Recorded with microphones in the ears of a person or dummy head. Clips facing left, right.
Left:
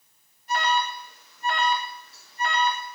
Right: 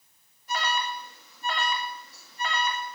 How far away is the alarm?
About 1.7 m.